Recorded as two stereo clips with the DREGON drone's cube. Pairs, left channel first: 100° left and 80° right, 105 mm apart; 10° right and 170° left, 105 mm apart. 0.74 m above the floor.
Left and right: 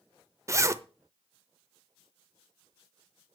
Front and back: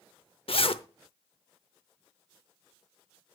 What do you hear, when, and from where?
0.5 s a zipper: 20° right, 0.6 m